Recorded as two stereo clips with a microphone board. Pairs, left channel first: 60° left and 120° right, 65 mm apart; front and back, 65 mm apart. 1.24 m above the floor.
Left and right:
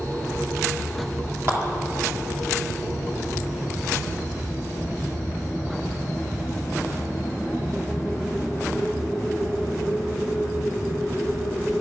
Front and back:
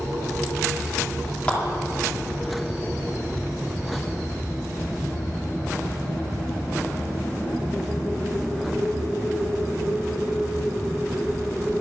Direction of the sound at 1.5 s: 75° right.